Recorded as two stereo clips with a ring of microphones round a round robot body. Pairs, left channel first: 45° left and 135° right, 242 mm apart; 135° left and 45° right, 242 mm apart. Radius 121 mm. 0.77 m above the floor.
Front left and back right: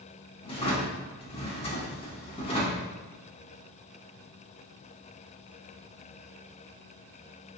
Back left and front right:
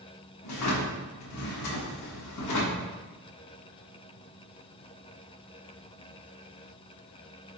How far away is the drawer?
About 0.8 m.